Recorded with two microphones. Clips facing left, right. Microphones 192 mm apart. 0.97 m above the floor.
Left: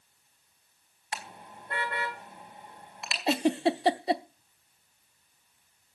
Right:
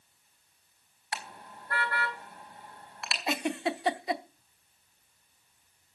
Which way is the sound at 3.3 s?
30° left (ahead or behind).